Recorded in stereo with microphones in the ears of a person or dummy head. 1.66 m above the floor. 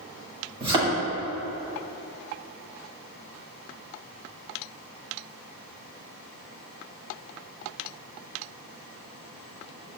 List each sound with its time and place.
0.6 s a thud: 30° right (ahead or behind), 2.5 m